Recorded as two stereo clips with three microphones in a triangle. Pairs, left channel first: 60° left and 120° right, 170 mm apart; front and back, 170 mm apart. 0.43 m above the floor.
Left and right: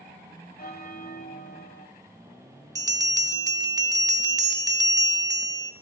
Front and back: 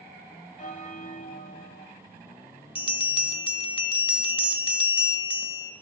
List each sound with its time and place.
0.6 s a bell: 35° left, 1.4 m
2.8 s a bell: 55° right, 0.8 m